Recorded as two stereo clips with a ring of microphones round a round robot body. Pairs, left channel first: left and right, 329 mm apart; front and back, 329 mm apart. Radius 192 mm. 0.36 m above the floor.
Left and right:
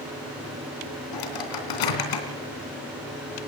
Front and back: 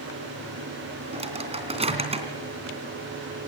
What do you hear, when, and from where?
1.1 s a microwave: 105° left, 3 m